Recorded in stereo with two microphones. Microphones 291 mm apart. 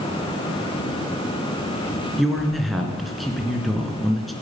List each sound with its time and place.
2.2 s a man speaking: centre (ahead or behind), 3 m